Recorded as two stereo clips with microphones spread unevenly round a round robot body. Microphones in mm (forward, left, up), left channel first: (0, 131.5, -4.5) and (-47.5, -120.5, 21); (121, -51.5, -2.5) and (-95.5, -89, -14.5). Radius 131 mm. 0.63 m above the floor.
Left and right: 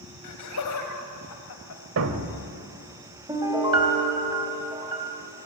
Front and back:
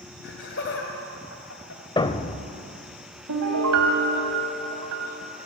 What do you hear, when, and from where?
0.2 s laughter: 60° left, 4.5 m; by 1.8 s 50° left, 3.5 m
2.0 s a thud: 60° right, 1.6 m
3.3 s a piano: 175° right, 3 m